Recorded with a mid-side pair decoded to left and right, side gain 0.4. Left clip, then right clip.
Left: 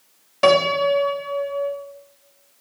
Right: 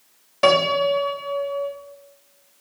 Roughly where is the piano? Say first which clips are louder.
Left 1 dB; ahead.